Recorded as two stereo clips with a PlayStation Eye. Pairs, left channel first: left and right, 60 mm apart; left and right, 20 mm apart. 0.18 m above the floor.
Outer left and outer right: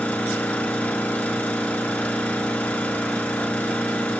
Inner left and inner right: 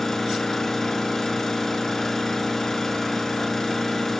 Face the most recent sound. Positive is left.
turn(degrees=25)  # may be behind; listen again after turning